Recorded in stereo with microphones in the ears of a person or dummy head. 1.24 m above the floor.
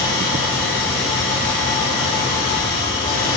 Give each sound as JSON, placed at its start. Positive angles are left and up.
{"t": 0.0, "sound": "an engine running", "side_deg": 30, "distance_m": 3.5}